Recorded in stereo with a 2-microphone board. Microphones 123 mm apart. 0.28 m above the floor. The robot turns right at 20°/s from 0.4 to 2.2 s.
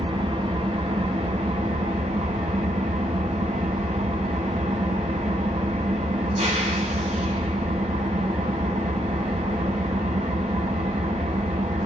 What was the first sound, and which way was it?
An engine running, 125° right.